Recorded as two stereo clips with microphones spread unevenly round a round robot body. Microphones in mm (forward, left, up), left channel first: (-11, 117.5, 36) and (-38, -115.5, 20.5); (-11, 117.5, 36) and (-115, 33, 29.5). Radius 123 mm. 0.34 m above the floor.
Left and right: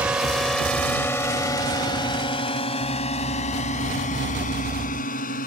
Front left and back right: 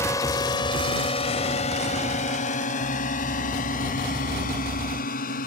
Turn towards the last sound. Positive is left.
turn(degrees=25)